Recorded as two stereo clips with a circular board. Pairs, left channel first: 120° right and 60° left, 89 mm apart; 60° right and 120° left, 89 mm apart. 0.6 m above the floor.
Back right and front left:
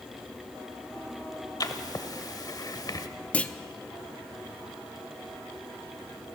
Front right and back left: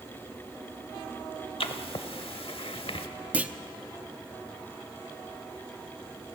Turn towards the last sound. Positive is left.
turn(degrees=180)